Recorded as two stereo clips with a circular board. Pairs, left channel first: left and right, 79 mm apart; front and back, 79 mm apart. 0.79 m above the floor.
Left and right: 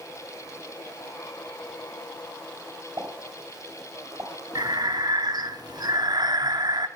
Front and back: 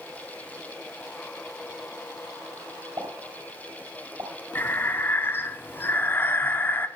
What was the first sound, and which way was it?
A pop, 140° right.